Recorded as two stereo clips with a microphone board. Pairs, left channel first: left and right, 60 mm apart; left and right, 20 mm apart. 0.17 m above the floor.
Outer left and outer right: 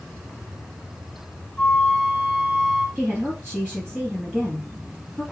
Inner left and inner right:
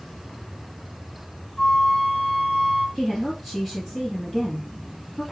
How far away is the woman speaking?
About 3 m.